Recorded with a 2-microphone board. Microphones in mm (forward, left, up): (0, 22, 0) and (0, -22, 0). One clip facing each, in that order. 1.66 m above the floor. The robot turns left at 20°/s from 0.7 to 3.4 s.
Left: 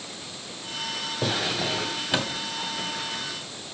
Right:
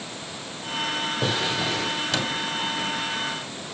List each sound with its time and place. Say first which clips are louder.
1.2 s a drawer: even; centre (ahead or behind), 2 m; by 2.4 s 20° left (ahead or behind), 2 m